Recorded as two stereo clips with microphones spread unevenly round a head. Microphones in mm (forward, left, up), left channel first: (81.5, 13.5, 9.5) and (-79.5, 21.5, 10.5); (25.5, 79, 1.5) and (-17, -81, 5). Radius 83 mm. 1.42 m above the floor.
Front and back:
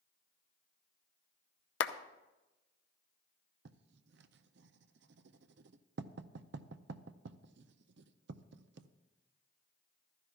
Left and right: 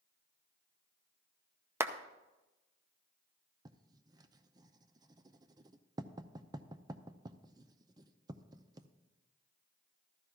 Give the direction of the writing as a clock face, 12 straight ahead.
6 o'clock.